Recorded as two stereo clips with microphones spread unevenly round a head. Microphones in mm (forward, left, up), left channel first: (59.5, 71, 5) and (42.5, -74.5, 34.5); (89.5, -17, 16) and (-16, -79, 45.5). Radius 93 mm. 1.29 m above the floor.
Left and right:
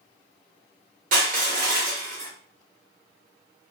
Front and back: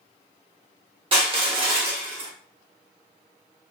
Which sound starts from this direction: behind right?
Crushing, at 1.1 s.